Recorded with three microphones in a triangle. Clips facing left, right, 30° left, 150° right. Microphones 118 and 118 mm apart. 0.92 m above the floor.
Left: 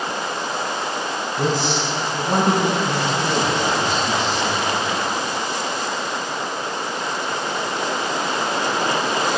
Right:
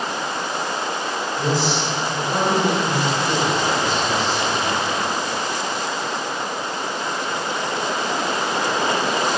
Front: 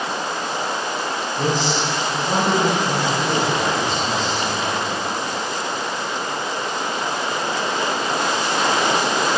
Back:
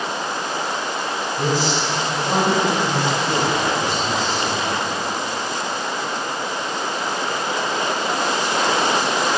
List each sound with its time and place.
1.4 s a man speaking: 130° left, 7 m